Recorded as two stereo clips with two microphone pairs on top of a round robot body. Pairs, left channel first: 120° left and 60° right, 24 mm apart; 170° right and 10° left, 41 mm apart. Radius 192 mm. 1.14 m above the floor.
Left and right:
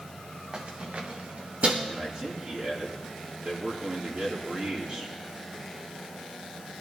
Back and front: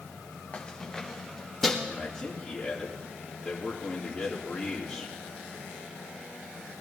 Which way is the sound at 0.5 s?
110° right.